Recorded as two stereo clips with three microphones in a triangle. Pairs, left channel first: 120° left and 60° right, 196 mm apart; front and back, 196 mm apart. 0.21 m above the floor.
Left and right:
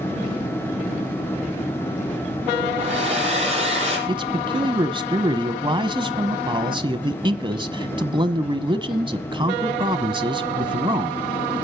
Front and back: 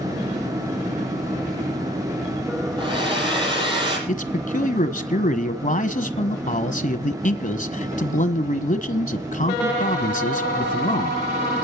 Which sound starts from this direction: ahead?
A man speaking, at 4.1 s.